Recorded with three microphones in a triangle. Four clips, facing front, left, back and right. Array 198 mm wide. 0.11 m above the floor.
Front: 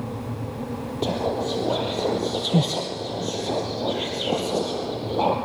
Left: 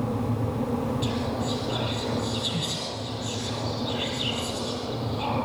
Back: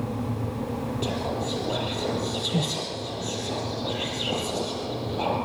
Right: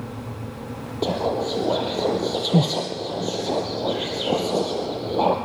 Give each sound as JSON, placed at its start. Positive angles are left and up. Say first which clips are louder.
{"t": 1.0, "sound": "whispering", "louder": "right 5 dB, front 8 dB", "azimuth_deg": -65, "distance_m": 2.5}